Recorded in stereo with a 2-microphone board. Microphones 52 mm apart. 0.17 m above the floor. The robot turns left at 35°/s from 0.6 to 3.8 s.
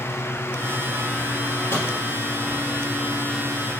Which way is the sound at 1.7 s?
55° left (ahead or behind).